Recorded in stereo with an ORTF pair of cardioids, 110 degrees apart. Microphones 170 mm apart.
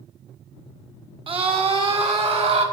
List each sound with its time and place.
1.3 s a scream: 30° right, 2.5 m; by 2.6 s 40° right, 4 m